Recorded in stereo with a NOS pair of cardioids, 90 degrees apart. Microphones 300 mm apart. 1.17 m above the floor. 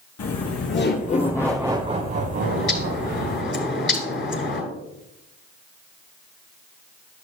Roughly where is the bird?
Ahead left.